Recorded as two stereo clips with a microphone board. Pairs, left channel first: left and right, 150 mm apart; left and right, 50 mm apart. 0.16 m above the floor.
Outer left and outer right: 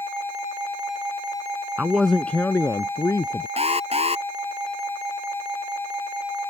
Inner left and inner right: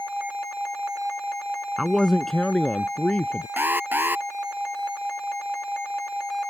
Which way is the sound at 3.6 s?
45° right (ahead or behind).